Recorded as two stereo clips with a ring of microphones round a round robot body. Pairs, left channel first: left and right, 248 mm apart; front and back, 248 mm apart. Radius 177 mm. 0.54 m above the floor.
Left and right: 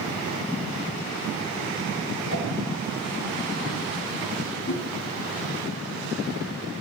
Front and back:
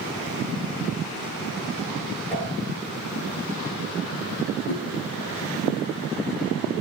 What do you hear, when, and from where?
2.3 s a whoosh: 80° left, 7.5 m
4.7 s a whoosh: 40° left, 3.5 m